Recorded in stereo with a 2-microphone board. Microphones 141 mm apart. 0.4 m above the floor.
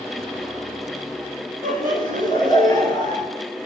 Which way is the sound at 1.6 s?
75° right (ahead or behind).